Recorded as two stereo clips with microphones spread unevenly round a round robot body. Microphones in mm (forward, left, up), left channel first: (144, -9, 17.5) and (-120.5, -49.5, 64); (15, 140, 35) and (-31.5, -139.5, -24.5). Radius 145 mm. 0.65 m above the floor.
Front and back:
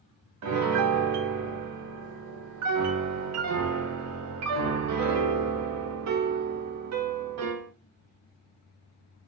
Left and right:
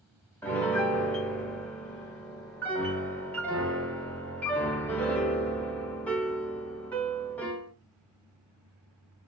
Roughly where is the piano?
Behind.